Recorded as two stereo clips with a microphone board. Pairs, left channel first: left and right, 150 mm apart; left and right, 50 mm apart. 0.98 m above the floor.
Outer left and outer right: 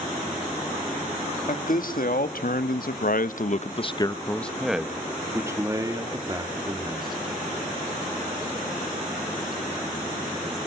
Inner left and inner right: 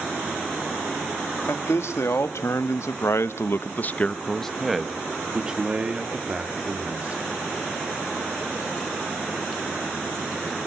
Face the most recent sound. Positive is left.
turn(degrees=-30)  # may be behind; listen again after turning